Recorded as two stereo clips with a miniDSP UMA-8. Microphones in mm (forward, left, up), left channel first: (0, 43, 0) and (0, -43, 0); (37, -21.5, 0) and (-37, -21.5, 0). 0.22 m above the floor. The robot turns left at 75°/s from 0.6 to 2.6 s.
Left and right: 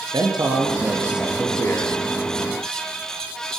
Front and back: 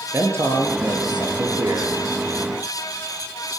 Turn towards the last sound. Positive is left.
turn(degrees=80)